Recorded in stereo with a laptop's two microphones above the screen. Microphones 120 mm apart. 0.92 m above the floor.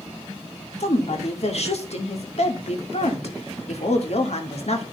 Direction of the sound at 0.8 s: 60° left (ahead or behind).